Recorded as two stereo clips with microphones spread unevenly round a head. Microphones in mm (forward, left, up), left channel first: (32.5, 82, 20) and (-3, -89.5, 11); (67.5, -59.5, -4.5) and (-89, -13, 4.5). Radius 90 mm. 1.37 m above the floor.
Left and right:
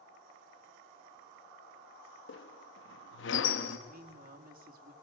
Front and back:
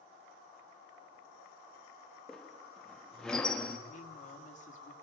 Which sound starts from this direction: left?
A squeak, at 2.3 s.